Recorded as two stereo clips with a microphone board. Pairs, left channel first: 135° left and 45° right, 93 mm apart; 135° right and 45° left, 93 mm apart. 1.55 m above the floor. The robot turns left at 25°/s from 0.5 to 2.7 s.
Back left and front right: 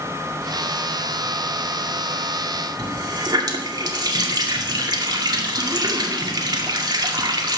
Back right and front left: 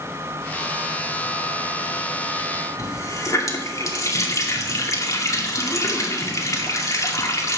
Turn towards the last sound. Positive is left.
turn(degrees=-85)